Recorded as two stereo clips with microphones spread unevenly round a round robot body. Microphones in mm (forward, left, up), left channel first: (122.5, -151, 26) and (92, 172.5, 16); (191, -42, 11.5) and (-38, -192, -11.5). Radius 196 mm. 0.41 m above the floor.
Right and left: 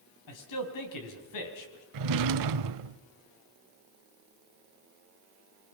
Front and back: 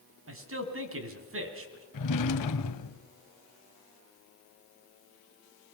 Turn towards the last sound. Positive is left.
turn(degrees=75)